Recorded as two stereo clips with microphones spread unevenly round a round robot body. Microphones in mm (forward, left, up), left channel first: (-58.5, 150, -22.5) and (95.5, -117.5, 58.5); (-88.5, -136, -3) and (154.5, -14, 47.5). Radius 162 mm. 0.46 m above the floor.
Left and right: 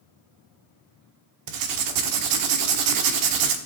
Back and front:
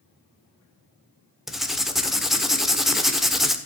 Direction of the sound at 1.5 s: 75° right.